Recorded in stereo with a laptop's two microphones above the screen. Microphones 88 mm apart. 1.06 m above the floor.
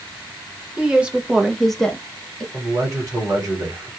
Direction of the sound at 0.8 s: 15° right (ahead or behind).